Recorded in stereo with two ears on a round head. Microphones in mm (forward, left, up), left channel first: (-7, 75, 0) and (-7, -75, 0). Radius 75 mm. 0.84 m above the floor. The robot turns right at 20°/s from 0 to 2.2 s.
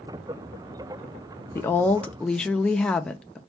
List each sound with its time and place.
1.6 s a woman speaking: 15° left (ahead or behind), 0.5 m; by 3.4 s 5° left (ahead or behind), 0.5 m